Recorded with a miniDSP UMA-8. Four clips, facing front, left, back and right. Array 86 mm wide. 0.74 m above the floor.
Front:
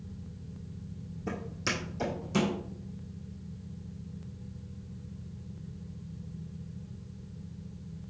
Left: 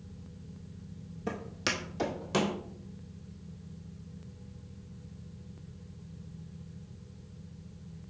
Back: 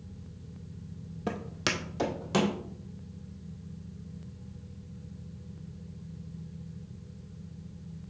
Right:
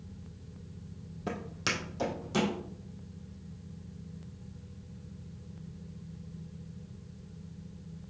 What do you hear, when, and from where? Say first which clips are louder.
1.3 s footsteps: even, back 2 dB; 165° right, 1.6 m; by 2.5 s 150° left, 2 m